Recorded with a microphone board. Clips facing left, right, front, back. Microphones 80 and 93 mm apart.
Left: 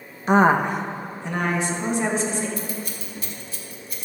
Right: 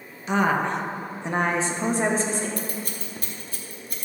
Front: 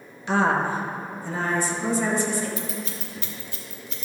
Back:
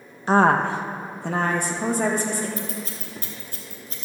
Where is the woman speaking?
130° left, 0.8 m; by 2.5 s 135° right, 2.5 m.